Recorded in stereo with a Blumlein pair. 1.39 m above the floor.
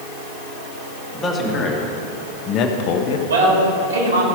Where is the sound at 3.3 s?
65° right, 2.5 m.